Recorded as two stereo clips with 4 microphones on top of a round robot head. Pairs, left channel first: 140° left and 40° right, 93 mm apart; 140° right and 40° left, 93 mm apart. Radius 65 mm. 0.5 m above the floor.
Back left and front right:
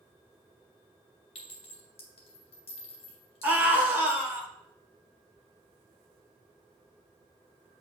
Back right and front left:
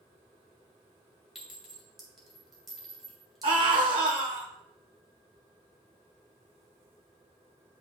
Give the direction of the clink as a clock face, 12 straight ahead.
8 o'clock.